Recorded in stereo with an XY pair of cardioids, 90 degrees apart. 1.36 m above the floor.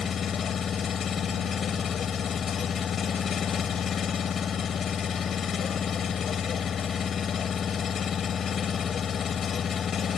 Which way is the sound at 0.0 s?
55° left.